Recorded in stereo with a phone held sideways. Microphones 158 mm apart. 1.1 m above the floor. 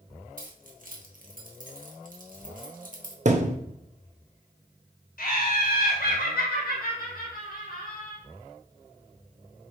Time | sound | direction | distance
0.4 | keys jangling | 60° right (ahead or behind) | 0.9 m
3.2 | a thud | 50° right (ahead or behind) | 0.5 m
5.2 | laughter | 65° left (ahead or behind) | 1.6 m